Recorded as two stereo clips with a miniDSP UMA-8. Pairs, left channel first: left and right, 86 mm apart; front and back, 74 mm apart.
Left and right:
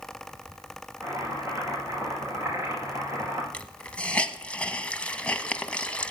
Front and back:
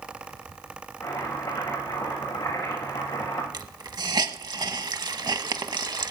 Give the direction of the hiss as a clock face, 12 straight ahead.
7 o'clock.